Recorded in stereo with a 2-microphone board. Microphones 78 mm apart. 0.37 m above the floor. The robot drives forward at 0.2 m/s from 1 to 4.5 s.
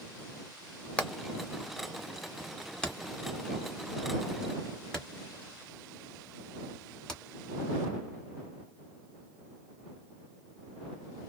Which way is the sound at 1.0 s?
15° left (ahead or behind).